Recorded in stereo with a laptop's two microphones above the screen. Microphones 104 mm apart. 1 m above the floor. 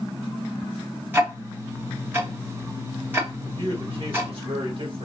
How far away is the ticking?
About 1.2 m.